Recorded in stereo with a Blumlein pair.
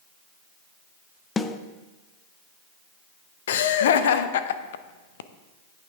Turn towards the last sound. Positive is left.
turn(degrees=60)